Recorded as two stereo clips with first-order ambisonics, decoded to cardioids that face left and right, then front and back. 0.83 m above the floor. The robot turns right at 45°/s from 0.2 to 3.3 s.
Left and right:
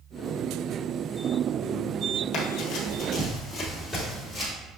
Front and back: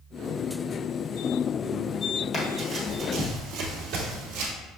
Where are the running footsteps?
75° left, 1.3 m; by 4.5 s 175° left, 1.7 m.